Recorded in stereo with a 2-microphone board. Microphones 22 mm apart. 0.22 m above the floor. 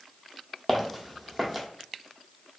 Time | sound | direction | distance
0.7 | footsteps | 5° left (ahead or behind) | 0.6 m